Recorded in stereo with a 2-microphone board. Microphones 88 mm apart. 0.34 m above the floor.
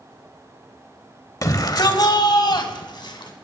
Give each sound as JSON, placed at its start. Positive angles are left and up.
{"t": 1.4, "sound": "a shout", "side_deg": 40, "distance_m": 1.2}